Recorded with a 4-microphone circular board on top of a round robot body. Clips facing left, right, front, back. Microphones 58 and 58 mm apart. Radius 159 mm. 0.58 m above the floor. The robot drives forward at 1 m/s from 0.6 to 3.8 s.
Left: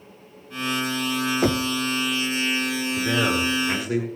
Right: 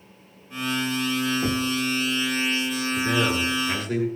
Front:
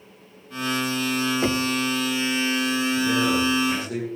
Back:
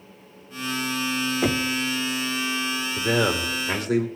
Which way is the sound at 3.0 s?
170° left.